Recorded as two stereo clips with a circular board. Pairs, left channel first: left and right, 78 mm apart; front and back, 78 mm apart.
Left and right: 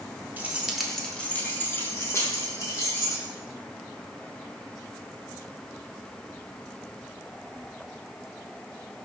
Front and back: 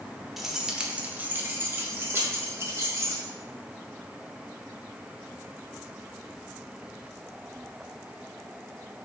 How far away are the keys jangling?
About 0.7 m.